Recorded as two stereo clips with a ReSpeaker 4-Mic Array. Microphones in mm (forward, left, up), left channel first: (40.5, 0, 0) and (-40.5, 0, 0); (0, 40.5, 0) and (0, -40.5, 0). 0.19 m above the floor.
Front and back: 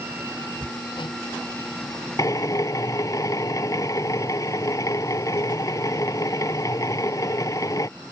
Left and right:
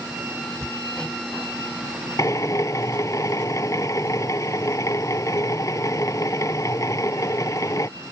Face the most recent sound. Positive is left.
turn(degrees=45)